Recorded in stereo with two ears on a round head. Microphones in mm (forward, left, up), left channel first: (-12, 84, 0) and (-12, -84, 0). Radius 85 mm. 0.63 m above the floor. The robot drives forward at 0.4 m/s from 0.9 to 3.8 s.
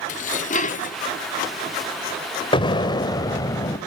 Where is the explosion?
25° left (ahead or behind), 1.0 m; by 3.8 s 20° left (ahead or behind), 1.5 m.